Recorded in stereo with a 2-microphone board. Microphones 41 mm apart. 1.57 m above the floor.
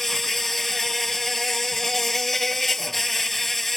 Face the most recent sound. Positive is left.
turn(degrees=10)  # may be behind; listen again after turning